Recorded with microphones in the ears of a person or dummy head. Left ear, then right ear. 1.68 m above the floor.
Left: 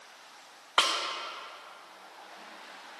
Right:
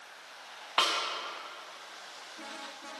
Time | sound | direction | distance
0.8 | a snare drum | 20° left (ahead or behind) | 0.9 m